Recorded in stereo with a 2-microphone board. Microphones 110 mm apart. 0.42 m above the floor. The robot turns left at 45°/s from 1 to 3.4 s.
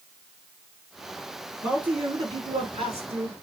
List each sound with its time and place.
1.6 s a man speaking: 5° right, 6 m; by 3.3 s 80° right, 6 m